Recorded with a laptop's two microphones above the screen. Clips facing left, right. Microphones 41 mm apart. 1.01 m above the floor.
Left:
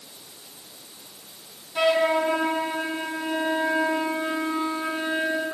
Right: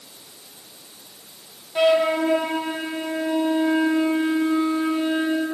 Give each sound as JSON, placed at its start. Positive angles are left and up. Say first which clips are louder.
{"t": 1.8, "sound": "a flute", "louder": "right 3 dB", "side_deg": -20, "distance_m": 0.7}